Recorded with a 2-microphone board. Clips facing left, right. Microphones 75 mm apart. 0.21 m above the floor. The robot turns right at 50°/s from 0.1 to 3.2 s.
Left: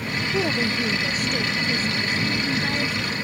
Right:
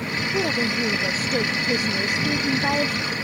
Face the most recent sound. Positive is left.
turn(degrees=-40)